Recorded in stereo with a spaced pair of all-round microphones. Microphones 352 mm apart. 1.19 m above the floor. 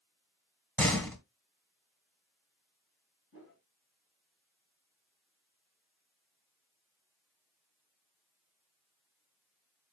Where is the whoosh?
40° left (ahead or behind), 4 m.